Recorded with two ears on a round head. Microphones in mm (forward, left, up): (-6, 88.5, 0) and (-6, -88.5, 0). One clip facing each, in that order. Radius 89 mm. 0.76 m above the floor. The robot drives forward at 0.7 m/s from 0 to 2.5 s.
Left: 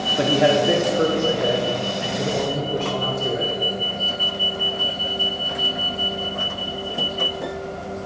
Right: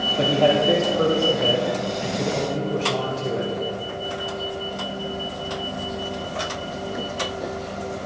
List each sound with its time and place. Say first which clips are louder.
0.2 s a man speaking: left 1 dB; 20° left (ahead or behind), 1.9 m; by 3.5 s 10° left (ahead or behind), 3.5 m